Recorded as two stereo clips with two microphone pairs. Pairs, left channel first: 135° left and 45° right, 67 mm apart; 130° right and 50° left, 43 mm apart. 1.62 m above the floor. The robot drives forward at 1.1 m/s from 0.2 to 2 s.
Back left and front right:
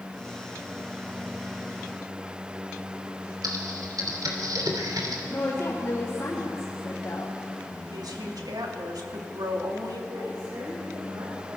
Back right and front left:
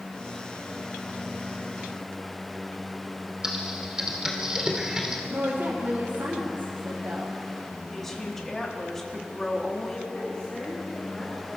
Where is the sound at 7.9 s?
50° right, 3 m.